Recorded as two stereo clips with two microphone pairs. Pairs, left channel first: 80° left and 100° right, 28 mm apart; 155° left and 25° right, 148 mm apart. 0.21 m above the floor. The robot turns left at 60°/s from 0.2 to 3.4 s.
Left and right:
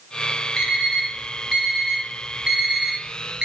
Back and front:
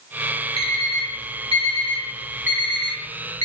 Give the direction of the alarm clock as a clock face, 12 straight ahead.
11 o'clock.